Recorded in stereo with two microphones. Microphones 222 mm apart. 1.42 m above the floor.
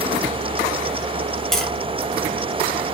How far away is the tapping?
About 5.5 m.